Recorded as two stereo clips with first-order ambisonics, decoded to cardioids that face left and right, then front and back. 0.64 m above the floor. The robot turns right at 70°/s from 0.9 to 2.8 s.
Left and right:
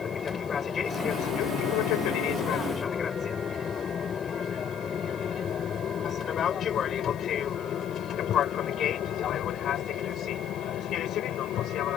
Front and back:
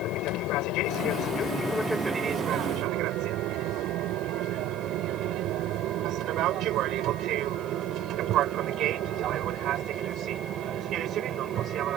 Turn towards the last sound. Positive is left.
turn(degrees=135)